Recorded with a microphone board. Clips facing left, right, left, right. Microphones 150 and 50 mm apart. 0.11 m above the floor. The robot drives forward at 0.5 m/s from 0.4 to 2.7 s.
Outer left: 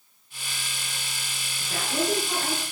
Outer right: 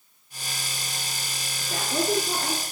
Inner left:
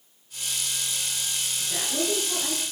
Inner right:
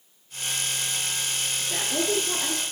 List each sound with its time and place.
1.6 s a woman speaking: 15° right (ahead or behind), 1.1 m; by 2.6 s 10° right (ahead or behind), 1.3 m